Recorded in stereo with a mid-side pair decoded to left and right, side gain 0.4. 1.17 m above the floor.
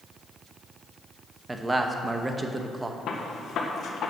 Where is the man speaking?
25° right, 1.1 m.